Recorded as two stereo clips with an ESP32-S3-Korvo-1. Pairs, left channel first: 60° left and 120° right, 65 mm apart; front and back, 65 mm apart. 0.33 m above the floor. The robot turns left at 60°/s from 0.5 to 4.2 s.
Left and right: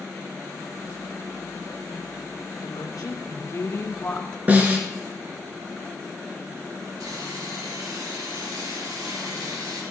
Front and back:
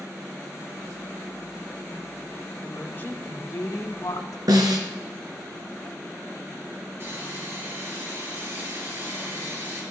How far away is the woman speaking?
About 2.5 m.